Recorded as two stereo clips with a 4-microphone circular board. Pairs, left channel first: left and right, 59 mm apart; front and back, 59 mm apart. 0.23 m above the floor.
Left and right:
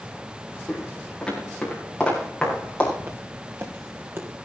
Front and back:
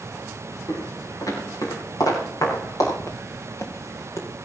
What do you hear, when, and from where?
0.7 s footsteps: 5° left, 8.5 m; by 2.9 s 15° left, 10.5 m
3.0 s footsteps: 35° right, 2 m; by 4.3 s 40° right, 3 m